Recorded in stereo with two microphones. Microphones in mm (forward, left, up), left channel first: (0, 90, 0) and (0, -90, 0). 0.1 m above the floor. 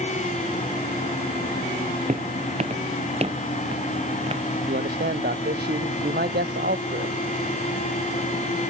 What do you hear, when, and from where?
2.1 s footsteps: 45° right (ahead or behind); by 4.4 s 35° right (ahead or behind)
4.7 s a man speaking: 70° right (ahead or behind)